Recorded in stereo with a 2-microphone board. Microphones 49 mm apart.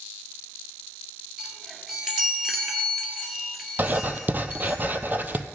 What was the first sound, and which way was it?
A chime, 10° right (ahead or behind).